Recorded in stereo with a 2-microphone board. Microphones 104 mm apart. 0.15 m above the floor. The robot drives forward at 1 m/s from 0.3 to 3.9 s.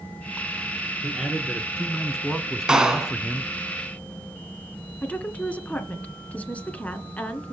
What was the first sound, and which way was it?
A man speaking, centre (ahead or behind).